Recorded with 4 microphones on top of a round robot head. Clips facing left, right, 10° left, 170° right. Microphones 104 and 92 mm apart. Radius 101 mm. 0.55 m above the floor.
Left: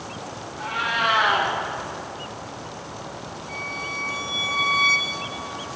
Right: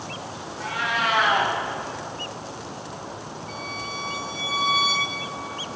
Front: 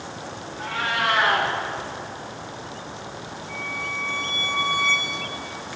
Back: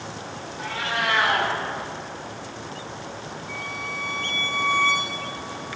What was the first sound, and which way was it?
A cat meowing, 50° left.